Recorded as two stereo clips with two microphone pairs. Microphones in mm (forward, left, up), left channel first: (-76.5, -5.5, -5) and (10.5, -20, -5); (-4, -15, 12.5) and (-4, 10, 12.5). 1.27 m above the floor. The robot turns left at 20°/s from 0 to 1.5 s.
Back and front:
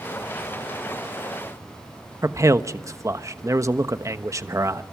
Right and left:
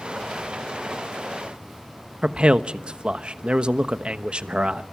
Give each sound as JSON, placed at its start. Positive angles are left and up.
{"t": 2.2, "sound": "a man speaking", "azimuth_deg": 45, "distance_m": 1.0}